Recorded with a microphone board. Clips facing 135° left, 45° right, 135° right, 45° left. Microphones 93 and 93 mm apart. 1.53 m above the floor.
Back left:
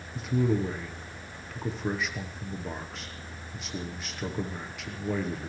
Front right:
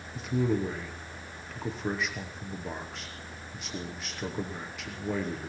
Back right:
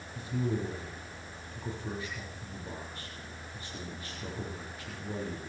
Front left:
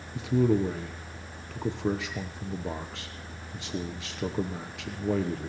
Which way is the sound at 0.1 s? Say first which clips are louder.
Back left 1 dB, front left 9 dB; 45° left.